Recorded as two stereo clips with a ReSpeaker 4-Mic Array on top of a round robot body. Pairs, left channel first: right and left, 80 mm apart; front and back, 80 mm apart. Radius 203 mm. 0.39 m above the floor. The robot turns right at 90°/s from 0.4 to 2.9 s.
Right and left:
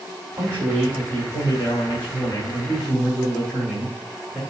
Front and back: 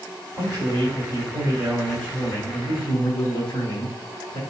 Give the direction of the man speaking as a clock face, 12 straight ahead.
7 o'clock.